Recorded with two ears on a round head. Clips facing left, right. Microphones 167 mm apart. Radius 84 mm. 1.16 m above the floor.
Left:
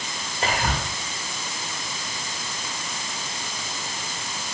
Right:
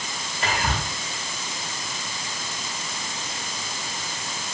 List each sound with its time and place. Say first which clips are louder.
0.4 s whispering: left 1 dB; 35° left (ahead or behind), 1.1 m